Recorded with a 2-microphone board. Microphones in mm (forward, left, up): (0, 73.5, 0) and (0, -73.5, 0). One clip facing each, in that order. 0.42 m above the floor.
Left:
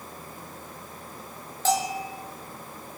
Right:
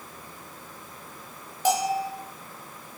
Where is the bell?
15° right (ahead or behind), 4.5 m.